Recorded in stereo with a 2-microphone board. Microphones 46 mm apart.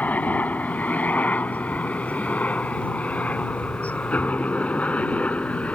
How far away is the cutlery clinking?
I don't hear cutlery clinking.